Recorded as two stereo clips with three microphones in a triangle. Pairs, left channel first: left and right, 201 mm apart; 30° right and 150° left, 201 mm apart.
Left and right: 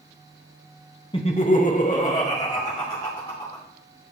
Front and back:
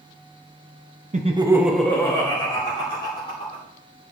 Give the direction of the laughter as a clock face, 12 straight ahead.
7 o'clock.